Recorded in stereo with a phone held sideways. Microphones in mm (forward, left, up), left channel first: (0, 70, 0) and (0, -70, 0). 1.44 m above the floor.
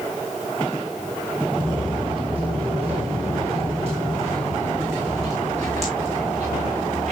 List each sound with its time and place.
1.6 s footsteps: 35° right (ahead or behind), 2.5 m; by 7.1 s 55° right (ahead or behind), 6.5 m